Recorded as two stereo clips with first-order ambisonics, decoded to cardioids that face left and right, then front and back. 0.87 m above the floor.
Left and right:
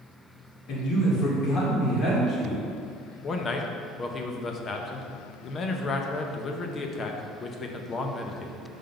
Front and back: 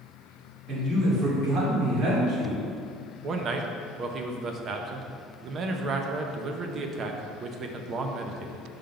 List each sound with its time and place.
0.7 s a man speaking: 130° left, 2 m; by 2.6 s 160° left, 2 m
3.2 s a man speaking: 140° left, 0.6 m